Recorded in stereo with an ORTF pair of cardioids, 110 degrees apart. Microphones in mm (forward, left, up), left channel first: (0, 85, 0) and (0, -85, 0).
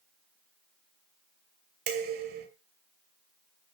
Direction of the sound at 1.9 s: 65° right.